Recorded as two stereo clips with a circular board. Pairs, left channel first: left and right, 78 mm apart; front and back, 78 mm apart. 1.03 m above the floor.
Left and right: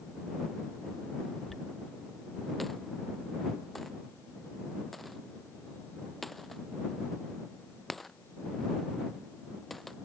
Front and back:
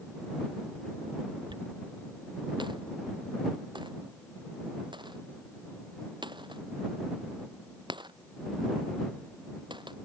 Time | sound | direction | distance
1.5 | a dropped coin | straight behind | ?